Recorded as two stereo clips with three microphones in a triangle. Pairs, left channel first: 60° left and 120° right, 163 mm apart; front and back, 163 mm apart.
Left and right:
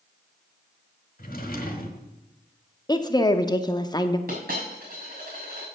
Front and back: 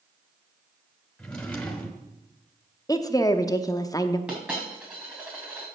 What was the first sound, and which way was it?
A drawer, 85° left.